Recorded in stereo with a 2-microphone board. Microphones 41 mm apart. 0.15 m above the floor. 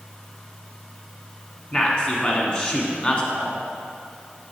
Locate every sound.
1.7 s a man speaking: 25° left (ahead or behind), 1.4 m